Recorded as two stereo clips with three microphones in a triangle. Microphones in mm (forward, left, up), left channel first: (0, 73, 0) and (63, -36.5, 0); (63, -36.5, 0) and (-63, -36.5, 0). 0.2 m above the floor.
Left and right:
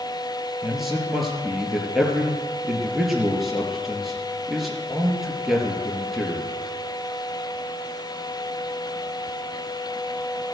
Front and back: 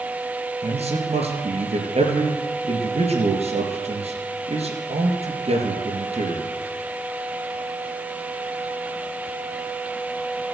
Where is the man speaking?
150° right, 4 m.